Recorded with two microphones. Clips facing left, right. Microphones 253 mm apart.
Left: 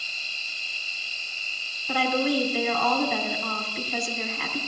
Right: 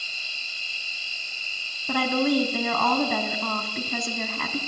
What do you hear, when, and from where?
0.0 s an insect: 10° right (ahead or behind), 9.5 m
1.9 s a woman speaking: 65° right (ahead or behind), 3 m